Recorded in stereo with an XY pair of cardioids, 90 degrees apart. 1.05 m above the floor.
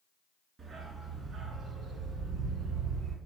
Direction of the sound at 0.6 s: 45° right.